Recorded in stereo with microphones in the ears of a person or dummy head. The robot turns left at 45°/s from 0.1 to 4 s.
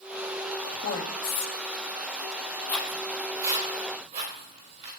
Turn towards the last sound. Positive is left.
turn(degrees=-40)  # may be behind; listen again after turning